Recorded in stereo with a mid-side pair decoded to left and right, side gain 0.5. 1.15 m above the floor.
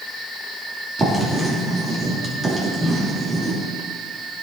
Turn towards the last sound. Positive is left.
turn(degrees=-25)